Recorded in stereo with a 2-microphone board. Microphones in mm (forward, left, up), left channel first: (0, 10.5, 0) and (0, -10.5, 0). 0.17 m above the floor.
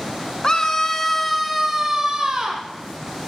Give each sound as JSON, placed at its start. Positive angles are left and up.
{"t": 0.4, "sound": "a scream", "side_deg": 35, "distance_m": 2.0}